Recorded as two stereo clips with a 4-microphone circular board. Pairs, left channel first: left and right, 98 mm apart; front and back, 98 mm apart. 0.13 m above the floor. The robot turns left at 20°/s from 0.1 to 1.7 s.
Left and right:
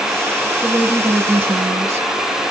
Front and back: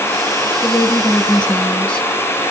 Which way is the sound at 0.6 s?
45° right.